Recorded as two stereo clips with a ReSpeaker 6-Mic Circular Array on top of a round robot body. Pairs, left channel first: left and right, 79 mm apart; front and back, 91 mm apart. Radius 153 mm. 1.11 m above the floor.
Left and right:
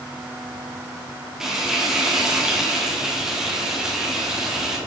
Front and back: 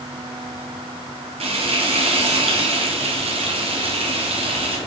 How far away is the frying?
About 1.5 m.